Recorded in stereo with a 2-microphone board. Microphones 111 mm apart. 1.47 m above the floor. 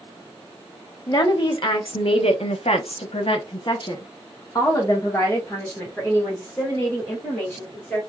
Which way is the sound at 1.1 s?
45° left (ahead or behind).